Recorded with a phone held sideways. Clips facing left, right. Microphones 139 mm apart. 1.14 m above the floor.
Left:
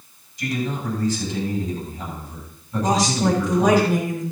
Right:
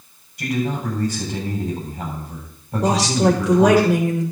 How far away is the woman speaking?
About 3.5 m.